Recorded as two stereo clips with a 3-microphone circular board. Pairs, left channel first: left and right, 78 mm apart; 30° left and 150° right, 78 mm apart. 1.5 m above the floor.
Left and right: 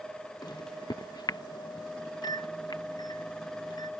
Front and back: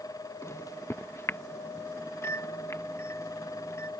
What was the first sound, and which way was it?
A microwave, 80° left.